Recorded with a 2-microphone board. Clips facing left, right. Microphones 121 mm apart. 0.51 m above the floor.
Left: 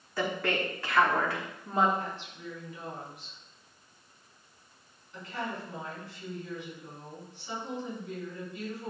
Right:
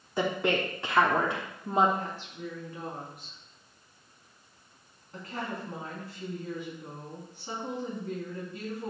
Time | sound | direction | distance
0.2 | a woman speaking | 20° right (ahead or behind) | 1.0 m
2.0 | a woman speaking | 45° right (ahead or behind) | 4.5 m